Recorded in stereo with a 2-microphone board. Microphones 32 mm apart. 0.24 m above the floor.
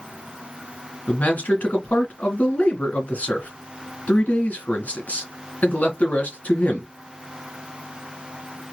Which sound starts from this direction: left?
A man speaking, at 1.1 s.